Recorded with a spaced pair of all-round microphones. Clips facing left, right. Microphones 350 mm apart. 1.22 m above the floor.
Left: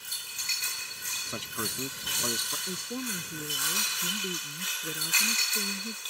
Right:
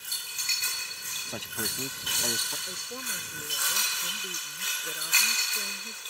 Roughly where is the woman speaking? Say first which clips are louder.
Left 9 dB; left.